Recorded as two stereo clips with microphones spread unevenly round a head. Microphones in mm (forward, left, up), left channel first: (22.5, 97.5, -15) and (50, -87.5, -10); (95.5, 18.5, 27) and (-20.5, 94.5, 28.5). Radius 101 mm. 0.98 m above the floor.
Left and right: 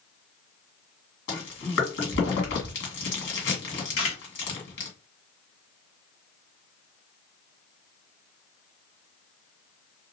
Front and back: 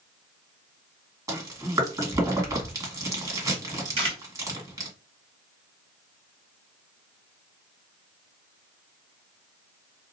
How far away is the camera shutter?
About 1.4 m.